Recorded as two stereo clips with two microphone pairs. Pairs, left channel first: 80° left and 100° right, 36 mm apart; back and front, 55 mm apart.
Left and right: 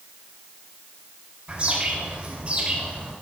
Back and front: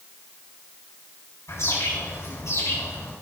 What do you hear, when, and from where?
1.5 s a bird: 150° right, 4.5 m